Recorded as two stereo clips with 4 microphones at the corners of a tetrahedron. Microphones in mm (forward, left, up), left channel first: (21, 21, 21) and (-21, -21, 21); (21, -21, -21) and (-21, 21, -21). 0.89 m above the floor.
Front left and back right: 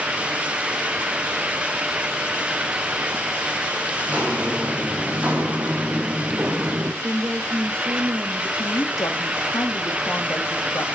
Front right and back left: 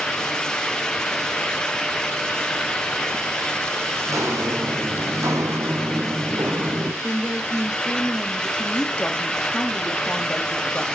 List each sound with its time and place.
4.1 s footsteps: 160° left, 3 m; by 6.9 s 170° left, 1.6 m
7.0 s a woman speaking: 160° right, 1.5 m
8.6 s a woman speaking: 30° left, 1.8 m